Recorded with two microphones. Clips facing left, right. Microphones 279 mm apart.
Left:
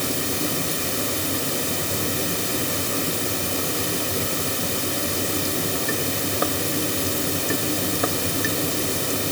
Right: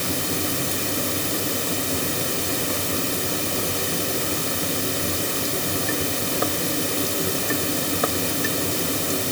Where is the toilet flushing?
I don't hear a toilet flushing.